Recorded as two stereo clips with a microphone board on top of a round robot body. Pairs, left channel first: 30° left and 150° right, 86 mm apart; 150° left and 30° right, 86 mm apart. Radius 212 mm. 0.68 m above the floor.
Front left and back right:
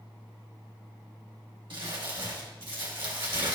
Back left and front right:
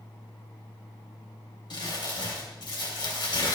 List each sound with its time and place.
1.7 s crumpling: 175° right, 3 m